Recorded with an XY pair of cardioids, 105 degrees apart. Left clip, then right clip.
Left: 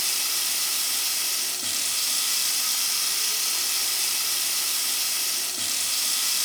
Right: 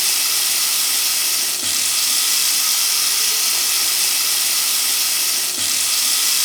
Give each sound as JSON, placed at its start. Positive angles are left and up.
{"t": 0.0, "sound": "running water", "azimuth_deg": -50, "distance_m": 2.0}